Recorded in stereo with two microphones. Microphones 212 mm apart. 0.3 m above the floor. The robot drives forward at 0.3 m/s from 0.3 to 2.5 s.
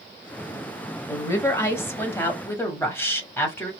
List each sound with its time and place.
1.1 s a woman speaking: 15° left (ahead or behind), 1.0 m; by 3.7 s 10° left (ahead or behind), 1.3 m